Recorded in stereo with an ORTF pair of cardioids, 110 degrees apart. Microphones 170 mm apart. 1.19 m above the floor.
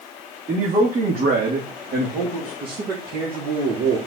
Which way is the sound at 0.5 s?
50° right.